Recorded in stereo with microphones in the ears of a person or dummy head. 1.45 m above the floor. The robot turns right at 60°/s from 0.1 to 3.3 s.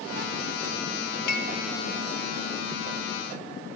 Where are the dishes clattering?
60° left (ahead or behind), 1.3 m; by 1.5 s 70° left (ahead or behind), 1.3 m.